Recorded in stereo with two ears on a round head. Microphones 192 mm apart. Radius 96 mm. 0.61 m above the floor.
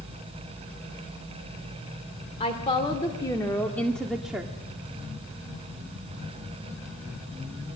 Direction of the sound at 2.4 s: 30° left (ahead or behind).